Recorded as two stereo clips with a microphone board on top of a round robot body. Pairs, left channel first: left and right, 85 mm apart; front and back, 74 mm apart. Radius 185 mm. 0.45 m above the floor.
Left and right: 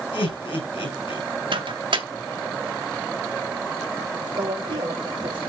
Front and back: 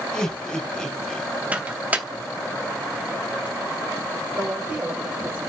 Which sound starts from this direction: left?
Laughter, at 0.1 s.